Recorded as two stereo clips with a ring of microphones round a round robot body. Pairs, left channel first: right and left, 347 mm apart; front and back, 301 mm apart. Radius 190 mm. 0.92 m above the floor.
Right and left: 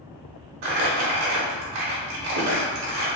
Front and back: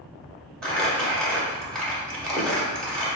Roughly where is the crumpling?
Left.